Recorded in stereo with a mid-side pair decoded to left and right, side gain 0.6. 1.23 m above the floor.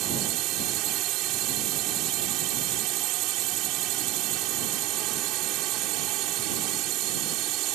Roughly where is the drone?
Right.